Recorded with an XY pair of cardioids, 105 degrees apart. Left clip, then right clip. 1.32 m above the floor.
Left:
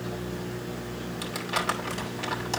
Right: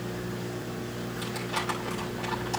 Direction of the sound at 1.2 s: 55° left.